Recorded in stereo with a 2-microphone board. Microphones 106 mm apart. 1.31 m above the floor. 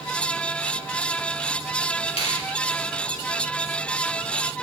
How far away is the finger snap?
About 2 m.